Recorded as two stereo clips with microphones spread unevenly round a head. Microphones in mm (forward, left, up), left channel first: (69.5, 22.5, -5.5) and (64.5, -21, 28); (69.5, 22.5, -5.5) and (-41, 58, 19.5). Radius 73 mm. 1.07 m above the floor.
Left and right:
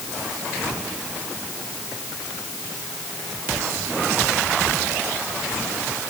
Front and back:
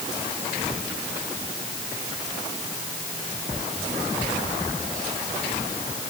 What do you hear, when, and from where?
Only background noise.